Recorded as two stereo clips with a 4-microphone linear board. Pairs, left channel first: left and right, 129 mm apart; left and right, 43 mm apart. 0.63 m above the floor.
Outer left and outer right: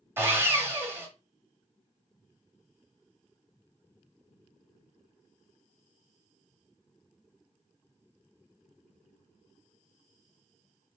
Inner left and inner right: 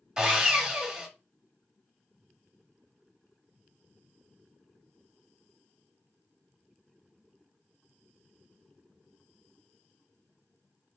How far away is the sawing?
About 0.8 m.